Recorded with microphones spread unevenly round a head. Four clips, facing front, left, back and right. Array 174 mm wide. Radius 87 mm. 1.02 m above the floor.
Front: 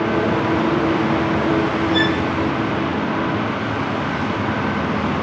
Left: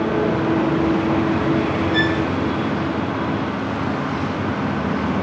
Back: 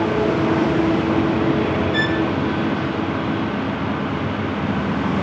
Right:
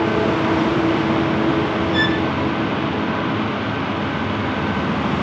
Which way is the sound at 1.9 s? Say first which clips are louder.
Even, front 2 dB; 115° left.